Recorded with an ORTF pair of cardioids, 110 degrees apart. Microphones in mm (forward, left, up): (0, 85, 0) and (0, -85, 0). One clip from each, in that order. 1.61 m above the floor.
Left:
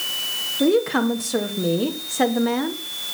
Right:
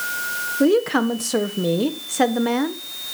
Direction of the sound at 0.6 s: 20° right.